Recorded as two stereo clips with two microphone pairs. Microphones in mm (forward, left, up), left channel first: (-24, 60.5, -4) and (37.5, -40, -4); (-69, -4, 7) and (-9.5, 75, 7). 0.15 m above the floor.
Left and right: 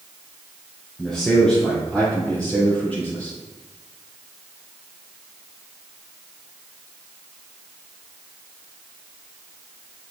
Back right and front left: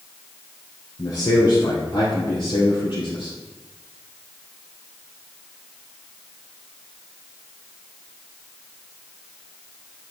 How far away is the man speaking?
About 2 m.